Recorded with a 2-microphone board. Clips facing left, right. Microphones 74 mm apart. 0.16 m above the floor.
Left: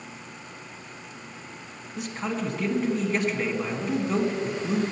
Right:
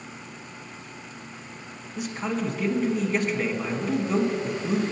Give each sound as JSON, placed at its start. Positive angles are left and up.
{"t": 2.0, "sound": "a man speaking", "side_deg": 0, "distance_m": 1.5}